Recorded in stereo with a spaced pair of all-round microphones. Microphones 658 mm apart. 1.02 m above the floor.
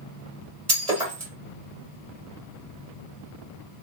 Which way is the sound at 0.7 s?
70° right (ahead or behind).